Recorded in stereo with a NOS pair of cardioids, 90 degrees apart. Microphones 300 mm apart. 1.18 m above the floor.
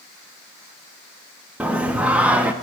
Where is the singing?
5° right, 0.6 m.